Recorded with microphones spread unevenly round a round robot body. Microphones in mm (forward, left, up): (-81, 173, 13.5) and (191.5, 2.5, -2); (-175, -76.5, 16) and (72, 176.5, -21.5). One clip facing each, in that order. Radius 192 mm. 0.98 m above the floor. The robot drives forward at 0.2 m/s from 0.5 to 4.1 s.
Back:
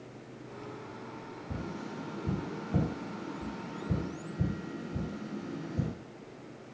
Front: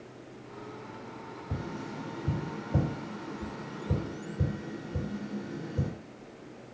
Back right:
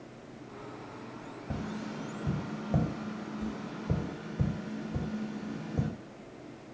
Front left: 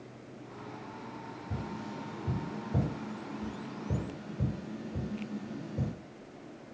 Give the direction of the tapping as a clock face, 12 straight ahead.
4 o'clock.